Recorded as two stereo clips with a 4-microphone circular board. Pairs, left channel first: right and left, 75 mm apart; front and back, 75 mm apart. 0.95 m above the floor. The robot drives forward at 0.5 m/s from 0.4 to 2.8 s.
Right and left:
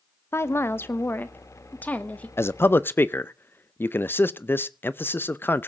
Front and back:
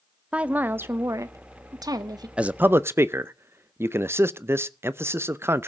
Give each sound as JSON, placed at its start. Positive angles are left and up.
{"t": 0.3, "sound": "a woman speaking", "azimuth_deg": -115, "distance_m": 0.7}
{"t": 2.4, "sound": "a man speaking", "azimuth_deg": -115, "distance_m": 0.6}